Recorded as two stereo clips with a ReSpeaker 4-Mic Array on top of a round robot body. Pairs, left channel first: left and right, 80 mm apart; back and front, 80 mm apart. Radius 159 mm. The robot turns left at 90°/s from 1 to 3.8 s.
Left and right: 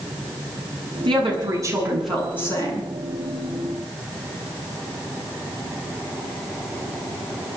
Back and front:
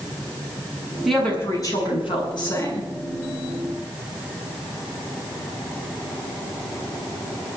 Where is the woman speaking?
85° right, 7.5 m; by 2.9 s 110° left, 7.5 m.